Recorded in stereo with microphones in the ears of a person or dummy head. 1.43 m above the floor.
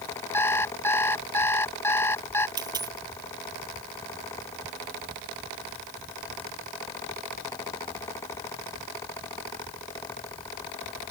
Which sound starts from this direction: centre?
An alarm clock, at 0.3 s.